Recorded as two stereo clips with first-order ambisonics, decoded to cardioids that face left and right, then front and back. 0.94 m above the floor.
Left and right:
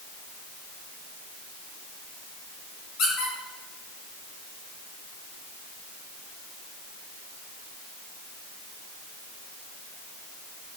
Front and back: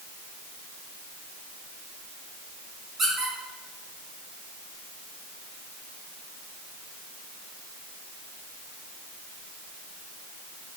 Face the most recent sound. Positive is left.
turn(degrees=115)